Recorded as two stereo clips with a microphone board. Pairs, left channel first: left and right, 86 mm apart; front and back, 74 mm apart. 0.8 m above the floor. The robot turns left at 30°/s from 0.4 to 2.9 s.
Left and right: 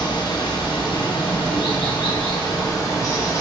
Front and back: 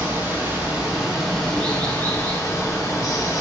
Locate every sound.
0.0 s running water: 115° left, 0.9 m; by 3.4 s 40° left, 0.9 m